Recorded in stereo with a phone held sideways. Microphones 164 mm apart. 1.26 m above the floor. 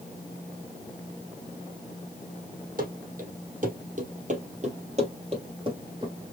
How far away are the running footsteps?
About 3 m.